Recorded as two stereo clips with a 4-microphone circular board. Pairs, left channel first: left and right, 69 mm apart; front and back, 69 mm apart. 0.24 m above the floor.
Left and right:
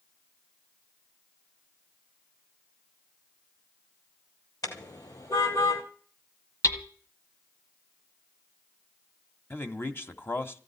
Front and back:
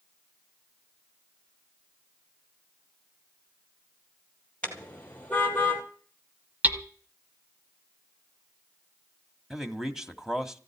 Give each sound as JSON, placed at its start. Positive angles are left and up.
{"t": 4.6, "sound": "a car horn", "azimuth_deg": 70, "distance_m": 3.5}
{"t": 6.6, "sound": "hammering", "azimuth_deg": 120, "distance_m": 1.8}
{"t": 9.5, "sound": "a man speaking", "azimuth_deg": 105, "distance_m": 1.9}